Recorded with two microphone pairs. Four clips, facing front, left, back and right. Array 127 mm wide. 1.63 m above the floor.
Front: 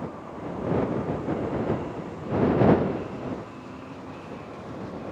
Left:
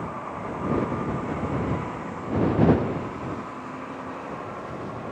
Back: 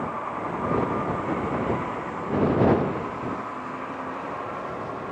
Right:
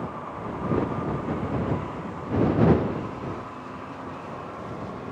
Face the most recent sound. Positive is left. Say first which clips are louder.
# left 1 dB, back 6 dB
turn(degrees=-170)